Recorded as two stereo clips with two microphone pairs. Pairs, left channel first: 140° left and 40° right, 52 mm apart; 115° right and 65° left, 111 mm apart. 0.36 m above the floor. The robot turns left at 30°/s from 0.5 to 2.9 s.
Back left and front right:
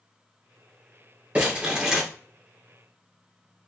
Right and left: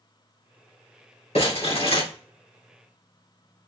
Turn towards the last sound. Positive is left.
turn(degrees=-150)